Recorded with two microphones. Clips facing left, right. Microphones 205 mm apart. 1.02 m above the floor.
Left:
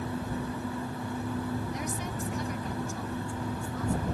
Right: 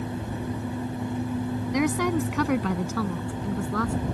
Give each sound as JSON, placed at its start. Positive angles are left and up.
{"t": 1.7, "sound": "a woman speaking", "side_deg": -90}